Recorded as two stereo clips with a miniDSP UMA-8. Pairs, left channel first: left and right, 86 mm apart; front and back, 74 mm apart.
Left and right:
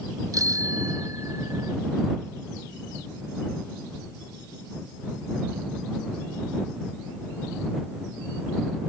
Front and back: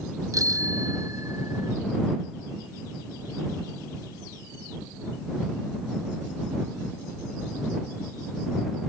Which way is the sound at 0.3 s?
140° right.